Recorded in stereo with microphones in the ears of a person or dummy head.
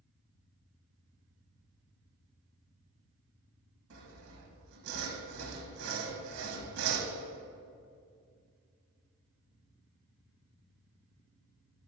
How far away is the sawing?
About 1.4 m.